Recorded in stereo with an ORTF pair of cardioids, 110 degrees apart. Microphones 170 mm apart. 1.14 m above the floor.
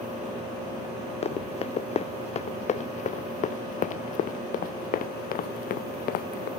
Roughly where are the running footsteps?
Ahead left.